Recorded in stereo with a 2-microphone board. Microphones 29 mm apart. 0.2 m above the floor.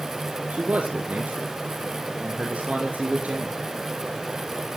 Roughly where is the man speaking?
Right.